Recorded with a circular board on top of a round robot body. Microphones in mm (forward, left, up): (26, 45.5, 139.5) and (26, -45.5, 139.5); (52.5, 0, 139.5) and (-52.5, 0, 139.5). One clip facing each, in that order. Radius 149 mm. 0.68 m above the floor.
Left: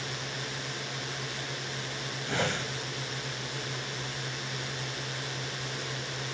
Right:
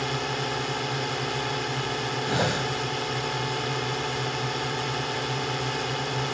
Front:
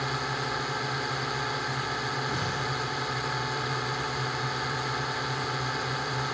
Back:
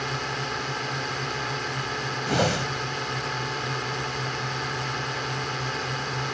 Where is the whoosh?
165° right.